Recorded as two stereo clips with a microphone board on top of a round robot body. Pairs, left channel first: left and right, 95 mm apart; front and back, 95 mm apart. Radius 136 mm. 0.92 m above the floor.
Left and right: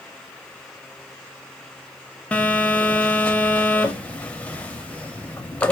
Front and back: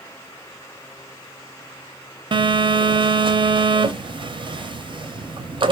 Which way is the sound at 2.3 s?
165° left.